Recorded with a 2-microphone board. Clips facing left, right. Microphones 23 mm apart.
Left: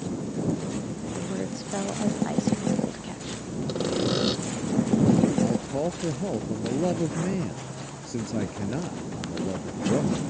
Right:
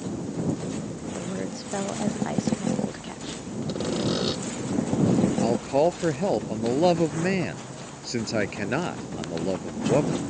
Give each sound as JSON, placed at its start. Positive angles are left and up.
{"t": 1.1, "sound": "a woman speaking", "side_deg": -15}
{"t": 3.7, "sound": "sawing", "side_deg": 0}
{"t": 5.4, "sound": "a man speaking", "side_deg": -50}